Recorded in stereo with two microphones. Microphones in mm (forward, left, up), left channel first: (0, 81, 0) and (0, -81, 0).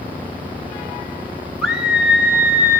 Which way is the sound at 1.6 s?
5° right (ahead or behind).